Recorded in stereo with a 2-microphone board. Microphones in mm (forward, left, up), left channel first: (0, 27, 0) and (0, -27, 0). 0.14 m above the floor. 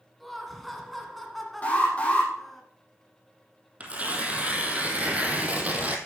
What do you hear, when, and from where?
0.2 s laughter: centre (ahead or behind), 1.7 m
1.6 s an alarm: 25° left (ahead or behind), 5 m
3.8 s tearing paper: 30° right (ahead or behind), 1.8 m